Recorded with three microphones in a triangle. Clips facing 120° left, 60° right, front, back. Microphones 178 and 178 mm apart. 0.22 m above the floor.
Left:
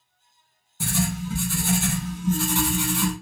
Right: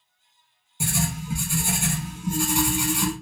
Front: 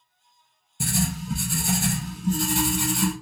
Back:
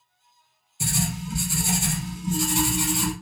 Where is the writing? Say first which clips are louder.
Left 2 dB, front 2 dB; 15° left, 0.8 m.